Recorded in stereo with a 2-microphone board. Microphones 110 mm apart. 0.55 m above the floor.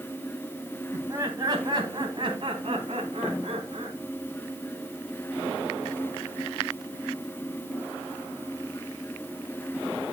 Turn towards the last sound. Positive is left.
turn(degrees=-65)  # may be behind; listen again after turning